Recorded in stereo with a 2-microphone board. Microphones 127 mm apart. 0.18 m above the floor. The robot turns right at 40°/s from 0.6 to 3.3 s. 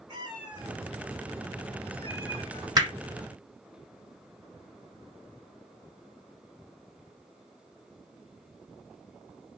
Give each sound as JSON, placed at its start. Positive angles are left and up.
{"t": 0.1, "sound": "a cat meowing", "azimuth_deg": -40, "distance_m": 1.4}
{"t": 2.8, "sound": "hammering", "side_deg": -30, "distance_m": 1.0}